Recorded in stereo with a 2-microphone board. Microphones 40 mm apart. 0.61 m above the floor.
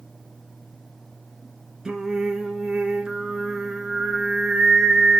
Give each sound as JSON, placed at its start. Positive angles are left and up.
{"t": 1.9, "sound": "singing", "side_deg": -15, "distance_m": 1.7}